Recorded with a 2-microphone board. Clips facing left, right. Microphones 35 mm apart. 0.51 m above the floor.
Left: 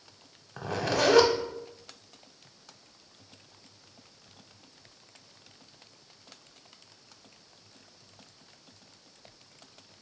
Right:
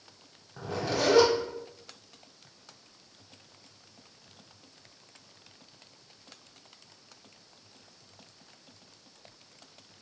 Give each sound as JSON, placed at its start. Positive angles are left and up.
{"t": 0.6, "sound": "a zipper", "side_deg": 75, "distance_m": 0.5}